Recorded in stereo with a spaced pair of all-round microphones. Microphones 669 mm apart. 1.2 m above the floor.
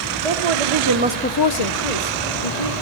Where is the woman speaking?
65° right (ahead or behind), 1.3 m; by 2.7 s 75° left (ahead or behind), 2.5 m.